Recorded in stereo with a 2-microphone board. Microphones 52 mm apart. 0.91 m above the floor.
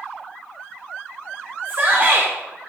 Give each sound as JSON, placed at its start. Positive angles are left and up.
{"t": 1.6, "sound": "a shout", "side_deg": -50, "distance_m": 2.0}